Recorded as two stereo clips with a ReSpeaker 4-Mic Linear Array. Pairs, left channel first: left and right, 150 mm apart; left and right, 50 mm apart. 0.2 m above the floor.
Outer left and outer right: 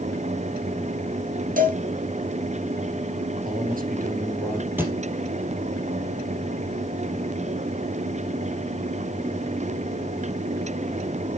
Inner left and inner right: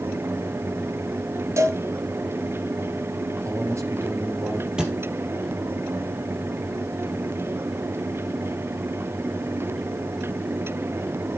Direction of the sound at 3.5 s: 65° right (ahead or behind).